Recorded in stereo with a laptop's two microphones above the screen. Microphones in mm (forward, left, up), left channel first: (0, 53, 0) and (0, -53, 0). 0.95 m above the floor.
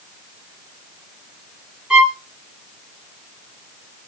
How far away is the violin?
About 1.9 m.